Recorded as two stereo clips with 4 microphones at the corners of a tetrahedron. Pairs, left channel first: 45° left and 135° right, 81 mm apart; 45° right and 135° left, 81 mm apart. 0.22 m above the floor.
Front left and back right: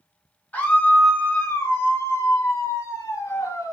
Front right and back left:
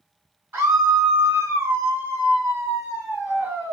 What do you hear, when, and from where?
0.5 s a scream: 100° left, 1.6 m; by 3.8 s 75° left, 3 m